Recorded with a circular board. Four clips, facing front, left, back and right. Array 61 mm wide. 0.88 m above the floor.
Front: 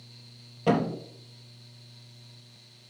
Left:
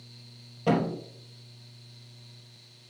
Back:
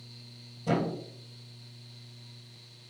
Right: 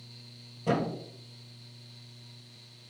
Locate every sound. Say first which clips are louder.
0.7 s a thud: left 3 dB, front 4 dB; 30° left, 3.5 m